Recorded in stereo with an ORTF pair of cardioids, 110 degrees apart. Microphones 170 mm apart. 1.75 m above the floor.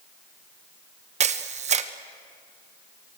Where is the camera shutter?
40° right, 1.4 m.